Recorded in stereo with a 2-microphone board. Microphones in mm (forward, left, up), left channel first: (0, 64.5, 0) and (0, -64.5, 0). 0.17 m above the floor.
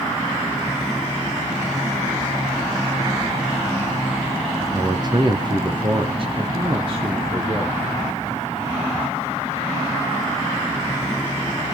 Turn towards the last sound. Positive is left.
turn(degrees=-45)  # may be behind; listen again after turning